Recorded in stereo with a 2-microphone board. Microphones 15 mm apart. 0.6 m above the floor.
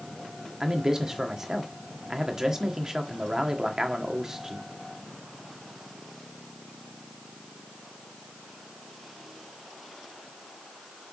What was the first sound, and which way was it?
A man speaking, 35° right (ahead or behind).